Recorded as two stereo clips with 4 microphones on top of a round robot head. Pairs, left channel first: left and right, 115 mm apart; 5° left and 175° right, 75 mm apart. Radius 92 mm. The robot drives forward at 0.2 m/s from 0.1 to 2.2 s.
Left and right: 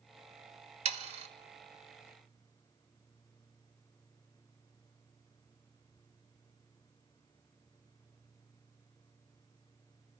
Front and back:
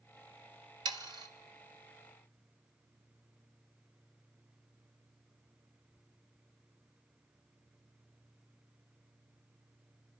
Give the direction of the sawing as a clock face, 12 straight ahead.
4 o'clock.